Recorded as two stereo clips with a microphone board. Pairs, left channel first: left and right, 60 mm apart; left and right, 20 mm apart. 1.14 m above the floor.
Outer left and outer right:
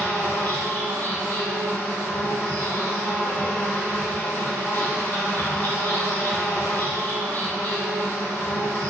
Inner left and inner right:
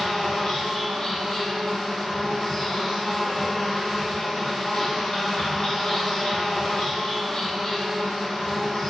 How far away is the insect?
About 1.1 m.